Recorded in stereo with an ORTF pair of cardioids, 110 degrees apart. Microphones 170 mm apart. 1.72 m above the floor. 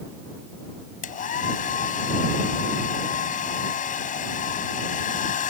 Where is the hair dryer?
50° left.